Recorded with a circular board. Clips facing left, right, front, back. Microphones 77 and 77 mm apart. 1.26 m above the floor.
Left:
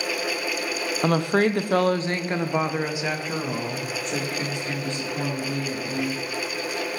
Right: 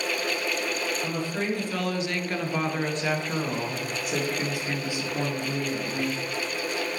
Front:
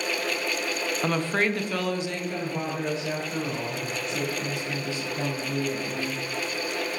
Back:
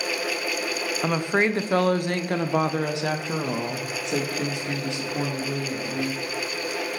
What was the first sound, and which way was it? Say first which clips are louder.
A woman speaking: left 8 dB, back 3 dB; 95° left.